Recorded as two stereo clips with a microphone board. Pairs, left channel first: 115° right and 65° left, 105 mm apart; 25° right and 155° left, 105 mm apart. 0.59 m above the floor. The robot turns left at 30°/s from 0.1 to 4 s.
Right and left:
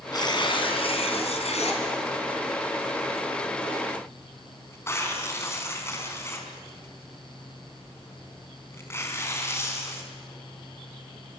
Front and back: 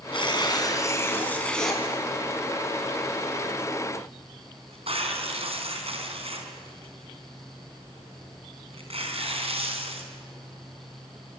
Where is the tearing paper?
60° right, 4 m; by 10.1 s straight behind, 4 m.